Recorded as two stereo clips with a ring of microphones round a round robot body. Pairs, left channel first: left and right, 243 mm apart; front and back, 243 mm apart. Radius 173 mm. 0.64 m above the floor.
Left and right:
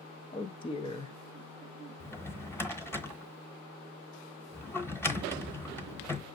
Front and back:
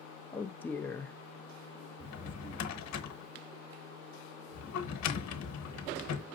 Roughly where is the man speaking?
Left.